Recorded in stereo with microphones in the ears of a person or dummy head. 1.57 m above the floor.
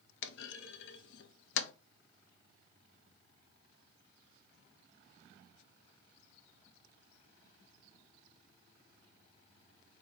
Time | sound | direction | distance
0.2 | a clunk | 70° left (ahead or behind) | 0.6 m